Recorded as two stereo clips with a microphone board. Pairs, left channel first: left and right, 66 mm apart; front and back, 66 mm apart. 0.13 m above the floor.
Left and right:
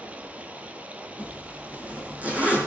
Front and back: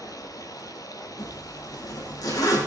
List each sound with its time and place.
0.0 s running water: 20° right, 1.3 m
1.2 s a zipper: 25° right, 4 m